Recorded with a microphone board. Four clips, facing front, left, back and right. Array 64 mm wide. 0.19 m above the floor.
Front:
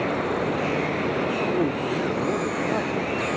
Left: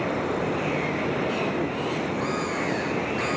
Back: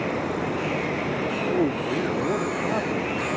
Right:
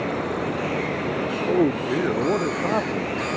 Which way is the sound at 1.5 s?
95° right.